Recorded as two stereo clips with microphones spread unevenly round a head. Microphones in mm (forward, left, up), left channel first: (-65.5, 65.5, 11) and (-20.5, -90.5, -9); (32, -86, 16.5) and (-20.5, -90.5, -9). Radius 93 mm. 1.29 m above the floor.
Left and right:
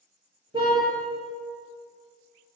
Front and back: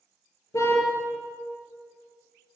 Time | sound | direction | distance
0.5 | a car horn | 5° right | 9 m